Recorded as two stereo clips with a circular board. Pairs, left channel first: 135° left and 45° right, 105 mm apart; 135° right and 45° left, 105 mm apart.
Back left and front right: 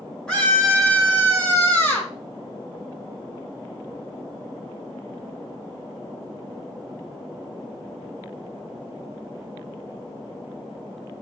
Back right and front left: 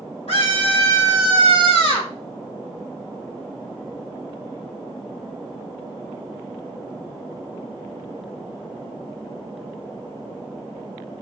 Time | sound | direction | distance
0.3 | a scream | 145° right | 6 m